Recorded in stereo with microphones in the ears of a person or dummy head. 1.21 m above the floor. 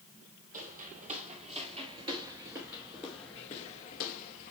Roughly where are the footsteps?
Right.